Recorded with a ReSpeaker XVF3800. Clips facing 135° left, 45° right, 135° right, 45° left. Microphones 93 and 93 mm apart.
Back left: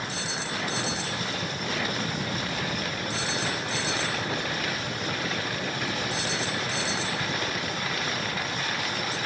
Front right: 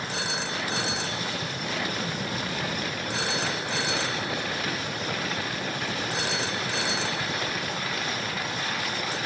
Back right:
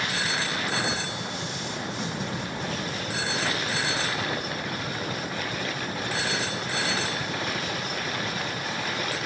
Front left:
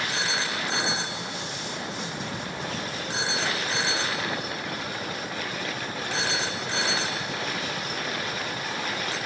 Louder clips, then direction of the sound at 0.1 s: Front right 2 dB, even; 20° right.